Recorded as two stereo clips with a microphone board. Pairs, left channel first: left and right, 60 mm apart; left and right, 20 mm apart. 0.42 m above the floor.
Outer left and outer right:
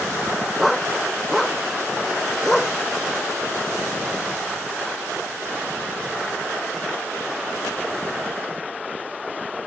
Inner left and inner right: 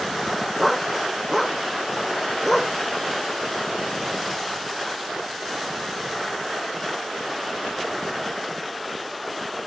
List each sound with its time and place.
0.6 s a dog barking: 5° left (ahead or behind)